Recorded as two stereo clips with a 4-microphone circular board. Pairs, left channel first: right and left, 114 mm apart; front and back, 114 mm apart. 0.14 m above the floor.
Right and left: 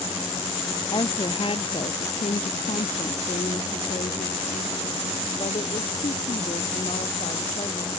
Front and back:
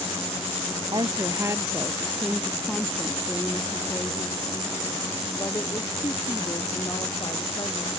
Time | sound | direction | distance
0.9 | a woman speaking | 130° right | ?